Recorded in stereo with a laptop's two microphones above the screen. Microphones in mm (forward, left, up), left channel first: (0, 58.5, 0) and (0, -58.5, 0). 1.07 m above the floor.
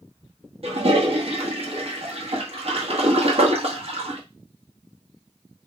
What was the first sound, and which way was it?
A toilet flushing, 55° right (ahead or behind).